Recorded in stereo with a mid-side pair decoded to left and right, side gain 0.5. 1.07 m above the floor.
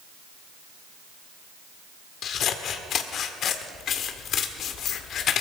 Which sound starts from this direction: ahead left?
Scissors, at 2.2 s.